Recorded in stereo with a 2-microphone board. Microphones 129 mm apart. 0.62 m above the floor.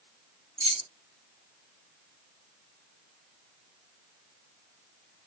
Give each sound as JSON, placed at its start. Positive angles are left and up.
{"t": 0.6, "sound": "keys jangling", "side_deg": -50, "distance_m": 0.5}